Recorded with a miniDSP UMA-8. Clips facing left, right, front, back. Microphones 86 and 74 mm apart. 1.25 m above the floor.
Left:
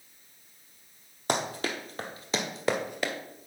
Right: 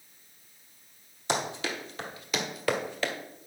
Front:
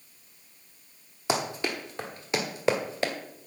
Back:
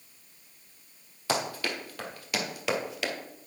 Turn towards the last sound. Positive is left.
turn(degrees=20)